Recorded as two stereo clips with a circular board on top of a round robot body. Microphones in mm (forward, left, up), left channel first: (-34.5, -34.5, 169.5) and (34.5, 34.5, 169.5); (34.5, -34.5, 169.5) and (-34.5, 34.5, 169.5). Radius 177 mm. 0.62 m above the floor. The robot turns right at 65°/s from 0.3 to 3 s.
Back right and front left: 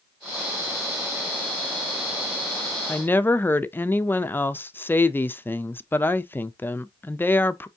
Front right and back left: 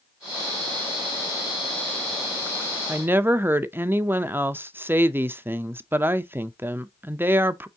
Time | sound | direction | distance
2.9 | a woman speaking | 170° left | 0.6 m